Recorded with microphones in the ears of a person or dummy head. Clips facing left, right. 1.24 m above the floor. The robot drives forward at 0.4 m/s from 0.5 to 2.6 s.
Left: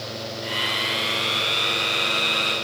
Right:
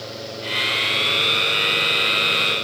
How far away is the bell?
No bell in this recording.